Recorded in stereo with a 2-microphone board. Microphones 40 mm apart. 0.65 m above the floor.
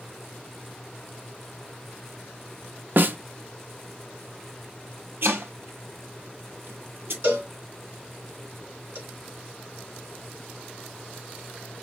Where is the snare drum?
50° right (ahead or behind), 0.7 m.